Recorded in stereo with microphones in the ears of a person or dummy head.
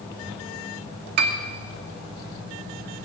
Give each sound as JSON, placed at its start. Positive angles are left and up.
{"t": 1.2, "sound": "a piano", "side_deg": -55, "distance_m": 1.4}